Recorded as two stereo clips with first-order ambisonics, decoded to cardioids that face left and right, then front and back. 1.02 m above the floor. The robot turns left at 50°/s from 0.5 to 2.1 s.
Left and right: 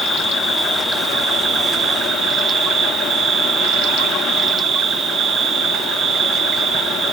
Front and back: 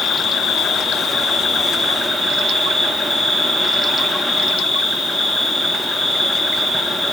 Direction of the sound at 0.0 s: 5° left.